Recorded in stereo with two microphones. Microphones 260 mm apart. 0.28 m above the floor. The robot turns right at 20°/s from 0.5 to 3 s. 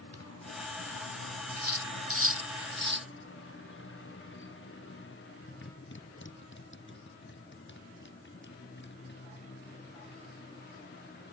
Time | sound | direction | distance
0.0 | a motorcycle | 75° left (ahead or behind) | ?
1.6 | cutlery clinking | 70° right (ahead or behind) | ?